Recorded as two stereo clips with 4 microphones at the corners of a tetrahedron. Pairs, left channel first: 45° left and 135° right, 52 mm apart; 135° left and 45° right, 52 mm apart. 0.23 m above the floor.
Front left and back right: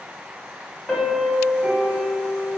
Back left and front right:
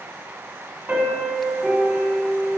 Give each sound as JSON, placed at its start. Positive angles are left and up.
{"t": 0.9, "sound": "a piano", "azimuth_deg": -40, "distance_m": 1.0}